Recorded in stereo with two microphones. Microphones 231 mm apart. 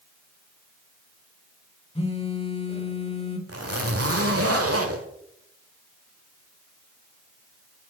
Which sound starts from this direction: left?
A phone buzzing, at 1.9 s.